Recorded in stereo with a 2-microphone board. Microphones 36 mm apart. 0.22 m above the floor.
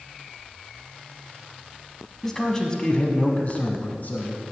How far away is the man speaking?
About 1.3 m.